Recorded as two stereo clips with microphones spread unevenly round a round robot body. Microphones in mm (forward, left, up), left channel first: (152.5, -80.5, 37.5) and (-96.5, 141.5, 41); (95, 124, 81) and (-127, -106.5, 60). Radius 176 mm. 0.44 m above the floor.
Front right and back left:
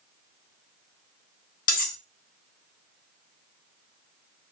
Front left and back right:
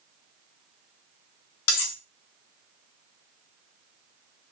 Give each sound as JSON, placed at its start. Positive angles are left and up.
{"t": 1.7, "sound": "cutlery clinking", "azimuth_deg": 15, "distance_m": 0.7}